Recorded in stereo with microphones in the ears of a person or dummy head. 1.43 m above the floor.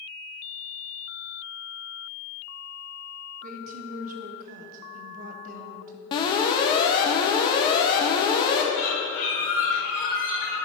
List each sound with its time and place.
3.4 s a woman speaking: 50° right (ahead or behind), 0.8 m
6.1 s an alarm: 25° left (ahead or behind), 0.9 m
8.7 s a bird: 45° left (ahead or behind), 2 m